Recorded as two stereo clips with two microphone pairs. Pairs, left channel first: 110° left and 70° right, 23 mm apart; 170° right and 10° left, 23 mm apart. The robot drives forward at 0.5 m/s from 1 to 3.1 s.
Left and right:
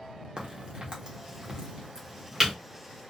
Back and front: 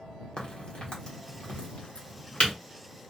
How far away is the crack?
About 1.0 m.